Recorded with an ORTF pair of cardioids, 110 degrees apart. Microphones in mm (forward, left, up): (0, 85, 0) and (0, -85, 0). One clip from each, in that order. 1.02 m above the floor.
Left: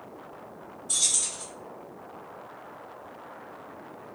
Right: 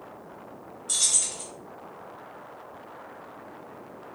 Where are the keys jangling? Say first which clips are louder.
Right 1 dB; 45° right, 1.4 m.